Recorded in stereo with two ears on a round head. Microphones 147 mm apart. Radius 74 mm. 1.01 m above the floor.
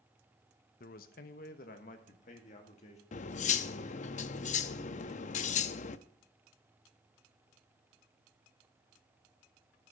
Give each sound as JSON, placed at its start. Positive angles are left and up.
{"t": 0.8, "sound": "a man speaking", "side_deg": 55, "distance_m": 0.9}
{"t": 3.1, "sound": "cutlery clinking", "side_deg": 50, "distance_m": 0.6}